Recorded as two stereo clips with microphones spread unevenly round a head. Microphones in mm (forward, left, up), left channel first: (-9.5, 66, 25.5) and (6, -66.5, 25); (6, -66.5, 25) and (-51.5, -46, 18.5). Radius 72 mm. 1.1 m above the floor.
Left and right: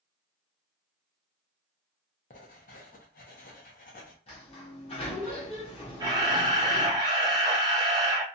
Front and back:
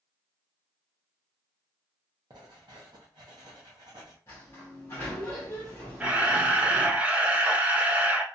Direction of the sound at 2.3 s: 125° left.